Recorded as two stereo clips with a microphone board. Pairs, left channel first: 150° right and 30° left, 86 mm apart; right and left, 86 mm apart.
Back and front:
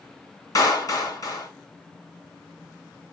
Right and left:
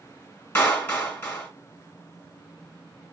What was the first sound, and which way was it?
A clap, 150° right.